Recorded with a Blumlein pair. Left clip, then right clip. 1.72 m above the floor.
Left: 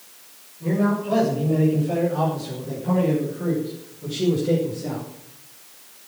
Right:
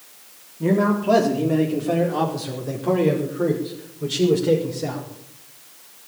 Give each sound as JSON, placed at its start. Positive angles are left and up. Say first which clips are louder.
{"t": 0.6, "sound": "a man speaking", "louder": "right 4 dB", "azimuth_deg": -35, "distance_m": 4.0}